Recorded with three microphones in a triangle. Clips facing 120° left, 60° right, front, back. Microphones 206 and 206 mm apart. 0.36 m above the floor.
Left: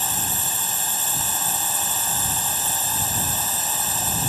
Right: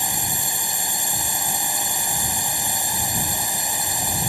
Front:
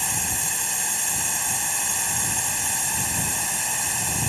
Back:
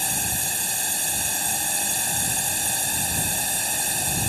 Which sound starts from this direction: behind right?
A drone, at 0.0 s.